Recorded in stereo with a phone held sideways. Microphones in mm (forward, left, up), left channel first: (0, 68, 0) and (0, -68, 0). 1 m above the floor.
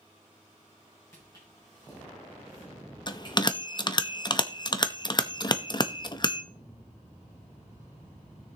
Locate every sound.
1.1 s footsteps: 20° left (ahead or behind), 4 m; by 3.6 s 40° left (ahead or behind), 5 m
3.1 s a bell: 30° left (ahead or behind), 0.7 m